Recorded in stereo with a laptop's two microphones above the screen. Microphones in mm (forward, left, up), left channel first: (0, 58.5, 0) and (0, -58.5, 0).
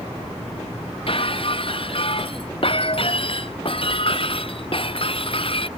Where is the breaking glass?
50° left (ahead or behind).